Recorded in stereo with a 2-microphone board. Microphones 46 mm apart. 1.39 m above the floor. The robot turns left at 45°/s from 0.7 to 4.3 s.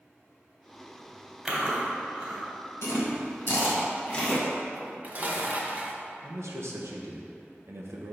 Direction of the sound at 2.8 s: 80° left.